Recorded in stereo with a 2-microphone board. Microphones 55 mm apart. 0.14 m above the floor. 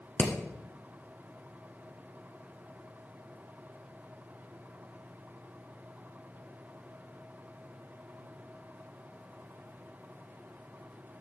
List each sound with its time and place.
0.2 s hammering: 40° left (ahead or behind), 1.7 m